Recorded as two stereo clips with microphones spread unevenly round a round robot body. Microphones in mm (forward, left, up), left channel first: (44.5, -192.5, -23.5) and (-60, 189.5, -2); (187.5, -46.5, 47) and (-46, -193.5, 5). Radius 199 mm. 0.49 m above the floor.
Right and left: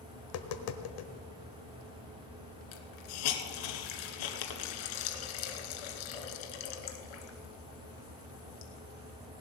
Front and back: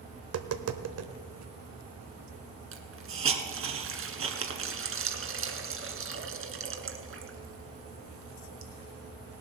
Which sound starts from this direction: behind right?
Tapping, at 0.2 s.